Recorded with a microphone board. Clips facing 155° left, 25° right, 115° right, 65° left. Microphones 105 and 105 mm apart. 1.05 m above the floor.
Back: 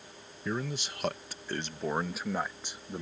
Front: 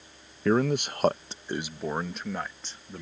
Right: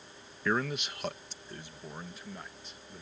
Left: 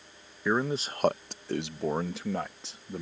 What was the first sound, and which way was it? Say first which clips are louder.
A man speaking: front 11 dB, left 4 dB; 10° right.